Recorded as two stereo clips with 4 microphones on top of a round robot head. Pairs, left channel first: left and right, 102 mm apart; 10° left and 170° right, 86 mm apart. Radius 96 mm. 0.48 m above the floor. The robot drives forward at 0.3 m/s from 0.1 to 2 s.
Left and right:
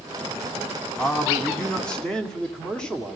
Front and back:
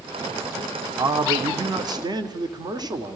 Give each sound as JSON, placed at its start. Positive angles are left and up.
{"t": 1.0, "sound": "a man speaking", "azimuth_deg": 165, "distance_m": 1.6}